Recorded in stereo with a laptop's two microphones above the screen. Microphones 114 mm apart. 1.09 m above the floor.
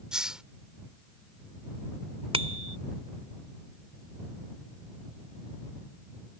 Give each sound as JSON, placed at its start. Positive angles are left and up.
{"t": 0.1, "sound": "a hiss", "side_deg": -5}
{"t": 2.3, "sound": "a bicycle bell", "side_deg": -55}